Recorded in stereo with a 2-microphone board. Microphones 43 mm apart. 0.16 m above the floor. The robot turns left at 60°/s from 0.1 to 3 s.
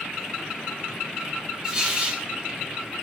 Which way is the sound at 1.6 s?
20° right.